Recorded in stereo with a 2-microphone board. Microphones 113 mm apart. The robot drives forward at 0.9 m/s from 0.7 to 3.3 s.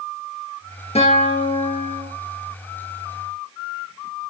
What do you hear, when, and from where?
0.9 s a guitar: 70° left (ahead or behind), 5 m; by 2.1 s 60° left (ahead or behind), 5.5 m